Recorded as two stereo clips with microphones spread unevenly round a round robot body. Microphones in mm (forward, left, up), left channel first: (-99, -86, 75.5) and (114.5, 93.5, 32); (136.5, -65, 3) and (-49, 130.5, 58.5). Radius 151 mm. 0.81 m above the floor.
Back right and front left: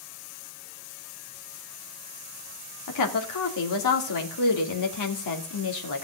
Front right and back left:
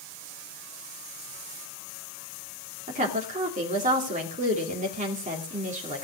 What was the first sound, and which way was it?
A woman speaking, 155° right.